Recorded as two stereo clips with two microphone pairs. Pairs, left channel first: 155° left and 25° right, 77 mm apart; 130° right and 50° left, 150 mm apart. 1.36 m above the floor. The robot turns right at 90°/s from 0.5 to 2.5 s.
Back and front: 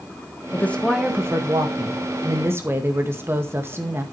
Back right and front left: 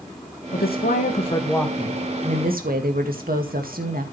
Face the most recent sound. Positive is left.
turn(degrees=35)